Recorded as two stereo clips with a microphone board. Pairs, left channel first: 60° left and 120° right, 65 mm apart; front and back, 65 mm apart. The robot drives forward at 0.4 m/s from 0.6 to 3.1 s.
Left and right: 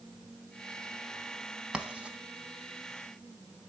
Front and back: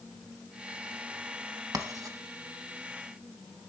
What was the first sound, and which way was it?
Writing, 165° left.